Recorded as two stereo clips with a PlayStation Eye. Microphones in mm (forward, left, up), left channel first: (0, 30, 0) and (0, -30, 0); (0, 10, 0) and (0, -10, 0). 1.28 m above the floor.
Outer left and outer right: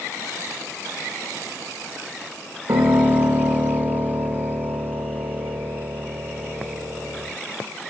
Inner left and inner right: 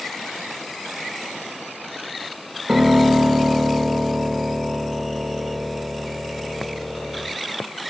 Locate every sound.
2.7 s a piano: 75° right (ahead or behind), 2.5 m